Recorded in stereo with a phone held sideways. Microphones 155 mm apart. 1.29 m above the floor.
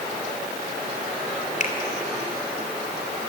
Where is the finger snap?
50° left (ahead or behind), 3 m.